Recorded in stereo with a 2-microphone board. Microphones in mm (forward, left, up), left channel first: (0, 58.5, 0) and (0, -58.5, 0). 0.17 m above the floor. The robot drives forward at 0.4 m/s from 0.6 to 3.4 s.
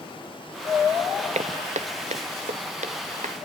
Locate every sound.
1.4 s footsteps: 75° right (ahead or behind), 0.8 m; by 3.4 s 85° right, 3 m